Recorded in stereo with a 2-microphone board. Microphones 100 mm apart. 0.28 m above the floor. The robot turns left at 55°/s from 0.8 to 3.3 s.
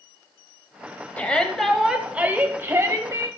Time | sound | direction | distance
1.2 | a shout | 30° left | 1.4 m